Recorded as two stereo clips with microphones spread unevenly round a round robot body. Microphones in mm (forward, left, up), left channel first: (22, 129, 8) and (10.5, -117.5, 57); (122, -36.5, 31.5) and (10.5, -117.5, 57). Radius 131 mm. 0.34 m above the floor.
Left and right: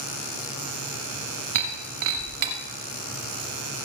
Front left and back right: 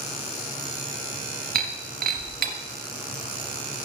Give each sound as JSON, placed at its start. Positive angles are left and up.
{"t": 1.6, "sound": "breaking glass", "azimuth_deg": -135, "distance_m": 1.4}